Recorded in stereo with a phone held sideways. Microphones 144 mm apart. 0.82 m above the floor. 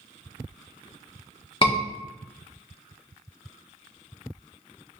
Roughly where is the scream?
Left.